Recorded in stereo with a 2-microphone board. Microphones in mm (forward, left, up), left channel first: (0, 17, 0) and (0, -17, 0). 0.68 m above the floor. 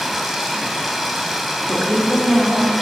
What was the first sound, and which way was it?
Running water, 5° left (ahead or behind).